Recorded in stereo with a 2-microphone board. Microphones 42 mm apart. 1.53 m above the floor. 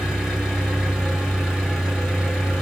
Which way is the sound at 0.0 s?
Centre (ahead or behind).